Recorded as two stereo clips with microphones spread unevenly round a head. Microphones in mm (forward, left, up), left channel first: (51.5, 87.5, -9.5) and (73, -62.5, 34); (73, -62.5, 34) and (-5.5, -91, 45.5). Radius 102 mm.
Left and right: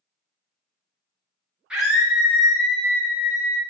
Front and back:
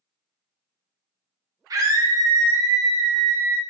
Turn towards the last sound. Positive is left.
turn(degrees=-150)